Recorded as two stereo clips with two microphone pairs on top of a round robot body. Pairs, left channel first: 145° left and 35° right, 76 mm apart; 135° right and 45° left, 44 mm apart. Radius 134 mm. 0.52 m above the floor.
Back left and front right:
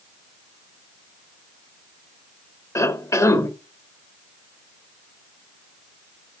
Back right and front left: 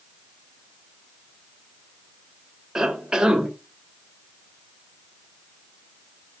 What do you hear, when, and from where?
2.8 s a cough: 125° left, 1.8 m